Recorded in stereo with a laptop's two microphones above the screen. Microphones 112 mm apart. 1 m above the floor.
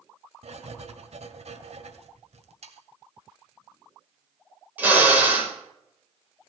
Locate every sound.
0.4 s writing: 75° right (ahead or behind), 1.7 m
2.6 s sawing: 65° right (ahead or behind), 2.5 m
4.8 s a drill: 15° right (ahead or behind), 4.5 m